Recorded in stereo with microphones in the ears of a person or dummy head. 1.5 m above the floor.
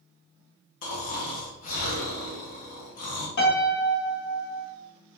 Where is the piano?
65° left (ahead or behind), 1.3 m.